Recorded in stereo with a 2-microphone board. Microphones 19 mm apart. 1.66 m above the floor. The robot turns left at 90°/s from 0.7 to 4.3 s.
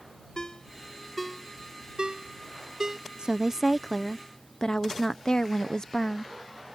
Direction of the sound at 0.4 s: 40° left (ahead or behind).